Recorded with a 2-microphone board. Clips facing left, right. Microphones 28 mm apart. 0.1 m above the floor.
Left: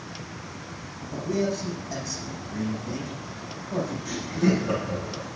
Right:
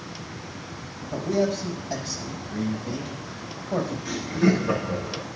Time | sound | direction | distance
1.1 | a man speaking | 60° right (ahead or behind) | 5 m
4.0 | laughter | 35° right (ahead or behind) | 5.5 m